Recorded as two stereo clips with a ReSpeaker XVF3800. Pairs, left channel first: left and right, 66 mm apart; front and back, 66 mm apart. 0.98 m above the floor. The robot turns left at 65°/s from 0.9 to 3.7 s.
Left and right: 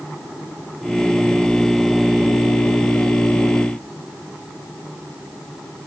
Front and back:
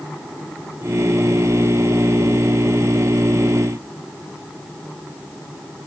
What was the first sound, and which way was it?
Only background noise.